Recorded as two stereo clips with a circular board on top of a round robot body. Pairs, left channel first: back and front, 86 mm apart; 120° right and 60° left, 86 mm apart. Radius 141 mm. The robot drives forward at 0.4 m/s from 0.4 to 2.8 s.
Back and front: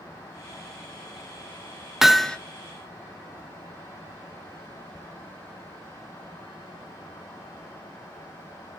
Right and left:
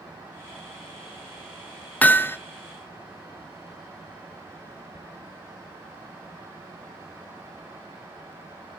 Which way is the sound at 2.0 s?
80° right.